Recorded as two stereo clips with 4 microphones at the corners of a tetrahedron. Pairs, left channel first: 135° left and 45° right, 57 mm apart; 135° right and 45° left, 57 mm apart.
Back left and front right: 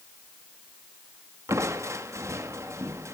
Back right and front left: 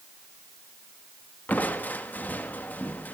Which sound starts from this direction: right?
Crushing, at 1.5 s.